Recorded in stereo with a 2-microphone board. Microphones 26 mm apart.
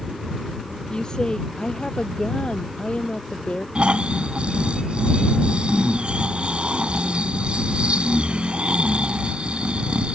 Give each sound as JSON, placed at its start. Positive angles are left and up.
{"t": 0.9, "sound": "a woman speaking", "side_deg": 30}
{"t": 3.8, "sound": "snoring", "side_deg": -45}